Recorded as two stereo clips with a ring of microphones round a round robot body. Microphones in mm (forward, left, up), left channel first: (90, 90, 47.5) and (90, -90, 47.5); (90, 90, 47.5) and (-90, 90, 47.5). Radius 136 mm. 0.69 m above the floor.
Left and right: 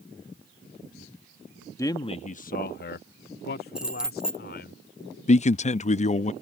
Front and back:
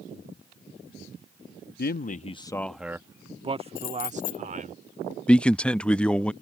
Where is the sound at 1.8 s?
20° left; by 4.8 s 135° left.